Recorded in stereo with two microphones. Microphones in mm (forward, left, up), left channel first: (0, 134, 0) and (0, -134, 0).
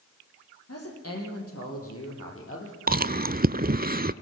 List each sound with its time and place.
0.7 s a woman speaking: 65° left (ahead or behind), 7 m; by 2.8 s 50° left (ahead or behind), 6.5 m
2.9 s chewing: 35° right (ahead or behind), 0.5 m